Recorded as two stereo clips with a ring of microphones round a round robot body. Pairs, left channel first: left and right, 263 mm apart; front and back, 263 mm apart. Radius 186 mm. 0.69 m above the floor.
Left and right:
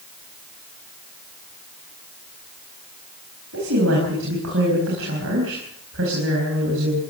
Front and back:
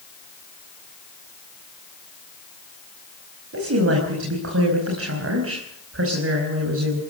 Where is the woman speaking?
145° right, 5 m.